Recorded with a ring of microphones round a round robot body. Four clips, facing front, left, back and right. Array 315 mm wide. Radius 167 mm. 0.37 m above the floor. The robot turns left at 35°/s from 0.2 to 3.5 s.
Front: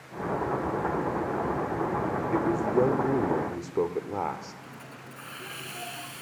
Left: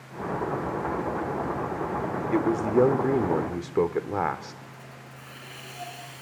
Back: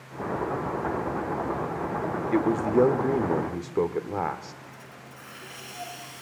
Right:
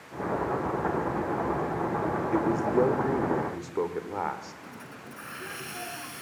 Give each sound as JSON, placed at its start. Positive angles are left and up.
{"t": 2.3, "sound": "a man speaking", "azimuth_deg": 150, "distance_m": 1.3}
{"t": 4.6, "sound": "a hiss", "azimuth_deg": -60, "distance_m": 1.7}